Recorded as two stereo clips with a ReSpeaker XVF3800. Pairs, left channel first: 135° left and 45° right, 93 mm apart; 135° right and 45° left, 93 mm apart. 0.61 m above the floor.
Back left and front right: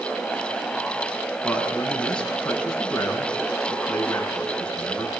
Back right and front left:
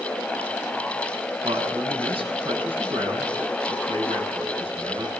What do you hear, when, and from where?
1.4 s a man speaking: 55° left, 8 m